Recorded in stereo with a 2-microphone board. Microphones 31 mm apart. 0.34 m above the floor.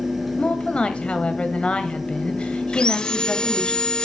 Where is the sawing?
30° left (ahead or behind), 0.6 m.